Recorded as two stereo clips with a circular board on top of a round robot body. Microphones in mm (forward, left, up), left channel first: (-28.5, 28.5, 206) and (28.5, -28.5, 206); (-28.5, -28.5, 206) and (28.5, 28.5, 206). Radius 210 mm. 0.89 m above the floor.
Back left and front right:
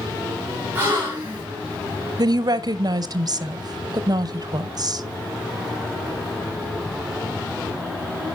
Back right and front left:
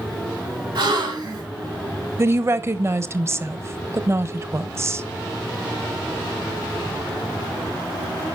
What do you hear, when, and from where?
0.8 s a gasp: 25° left, 3.5 m
2.2 s a woman speaking: 10° right, 0.8 m